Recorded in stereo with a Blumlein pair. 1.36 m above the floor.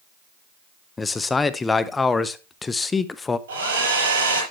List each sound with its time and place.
1.0 s a man speaking: 10° left, 0.8 m
3.5 s a hair dryer: 65° right, 6 m